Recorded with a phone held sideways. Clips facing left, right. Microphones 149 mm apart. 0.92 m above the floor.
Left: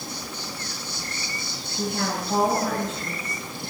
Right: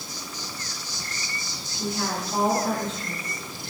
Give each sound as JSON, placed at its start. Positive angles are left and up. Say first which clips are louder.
{"t": 0.0, "sound": "an insect", "louder": "left 3 dB", "side_deg": 60, "distance_m": 2.0}
{"t": 1.8, "sound": "a woman speaking", "louder": "left 2 dB", "side_deg": 80, "distance_m": 8.5}